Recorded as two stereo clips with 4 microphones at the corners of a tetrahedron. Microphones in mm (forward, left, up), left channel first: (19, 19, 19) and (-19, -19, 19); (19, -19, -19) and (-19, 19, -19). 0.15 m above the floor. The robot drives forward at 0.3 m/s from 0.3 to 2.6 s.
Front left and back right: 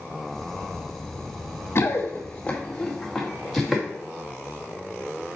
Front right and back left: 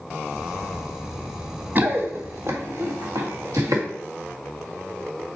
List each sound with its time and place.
1.8 s running footsteps: 85° left, 1.8 m; by 3.8 s 140° left, 3 m